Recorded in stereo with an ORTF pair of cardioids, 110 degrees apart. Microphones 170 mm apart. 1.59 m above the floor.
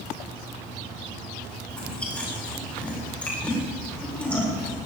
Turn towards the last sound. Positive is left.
turn(degrees=5)